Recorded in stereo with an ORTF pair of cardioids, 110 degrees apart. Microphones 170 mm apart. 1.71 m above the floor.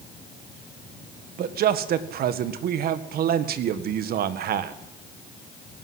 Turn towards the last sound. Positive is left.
turn(degrees=-65)